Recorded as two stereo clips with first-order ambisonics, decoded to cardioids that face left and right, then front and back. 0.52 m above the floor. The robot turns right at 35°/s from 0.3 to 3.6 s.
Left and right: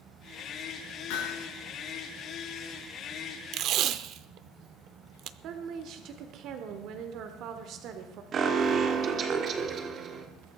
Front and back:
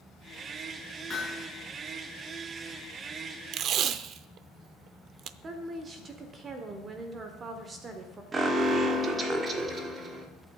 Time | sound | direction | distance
1.1 | hammering | 70° left | 4 m
3.5 | tape being pulled | 135° right | 0.5 m
5.4 | a woman speaking | 120° right | 1.3 m
8.3 | an alarm | 125° right | 1.4 m